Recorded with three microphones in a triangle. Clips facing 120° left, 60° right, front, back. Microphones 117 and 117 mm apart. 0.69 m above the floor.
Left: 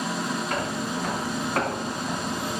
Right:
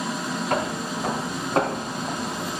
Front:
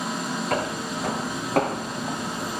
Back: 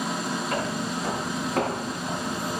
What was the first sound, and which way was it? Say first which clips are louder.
Footsteps: right 2 dB, front 1 dB; 15° right.